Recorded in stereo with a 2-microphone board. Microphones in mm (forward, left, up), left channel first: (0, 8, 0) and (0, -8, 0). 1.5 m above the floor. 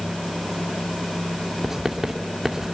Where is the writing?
20° right (ahead or behind), 2.5 m.